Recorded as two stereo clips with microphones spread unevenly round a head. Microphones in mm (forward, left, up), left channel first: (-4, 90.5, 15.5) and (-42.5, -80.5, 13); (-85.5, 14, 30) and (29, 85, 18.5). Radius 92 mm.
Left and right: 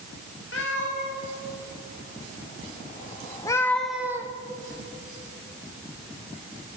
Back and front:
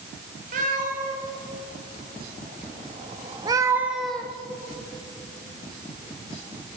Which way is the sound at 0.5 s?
50° left.